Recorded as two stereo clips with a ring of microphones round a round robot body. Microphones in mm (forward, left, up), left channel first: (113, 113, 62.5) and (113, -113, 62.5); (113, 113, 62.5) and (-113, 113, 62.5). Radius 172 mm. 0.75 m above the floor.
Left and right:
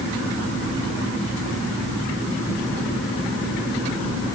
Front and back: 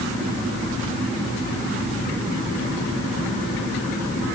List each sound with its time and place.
Only background noise.